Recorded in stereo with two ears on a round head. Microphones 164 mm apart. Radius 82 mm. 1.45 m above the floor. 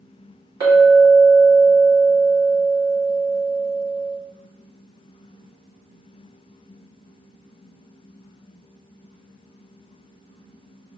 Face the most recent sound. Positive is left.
turn(degrees=-25)  # may be behind; listen again after turning